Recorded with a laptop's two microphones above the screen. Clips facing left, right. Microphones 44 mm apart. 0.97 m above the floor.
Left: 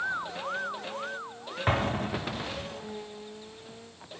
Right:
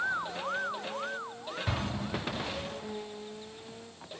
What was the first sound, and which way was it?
An explosion, 45° left (ahead or behind).